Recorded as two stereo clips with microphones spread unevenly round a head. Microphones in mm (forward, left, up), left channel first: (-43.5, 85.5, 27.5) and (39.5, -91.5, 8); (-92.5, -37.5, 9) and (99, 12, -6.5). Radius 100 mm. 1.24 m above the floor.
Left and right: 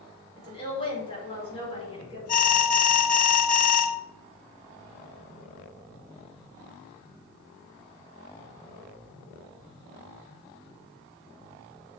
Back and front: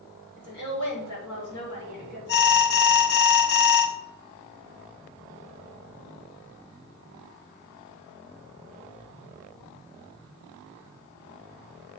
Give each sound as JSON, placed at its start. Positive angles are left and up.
{"t": 0.4, "sound": "a woman speaking", "azimuth_deg": 180, "distance_m": 4.5}
{"t": 2.3, "sound": "an alarm", "azimuth_deg": 160, "distance_m": 0.9}